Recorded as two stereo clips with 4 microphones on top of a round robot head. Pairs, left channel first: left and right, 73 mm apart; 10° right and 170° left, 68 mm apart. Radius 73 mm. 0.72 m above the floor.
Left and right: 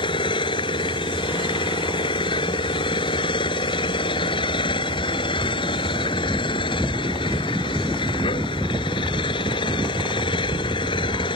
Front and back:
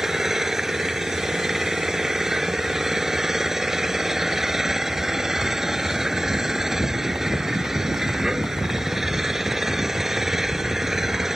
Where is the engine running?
85° left.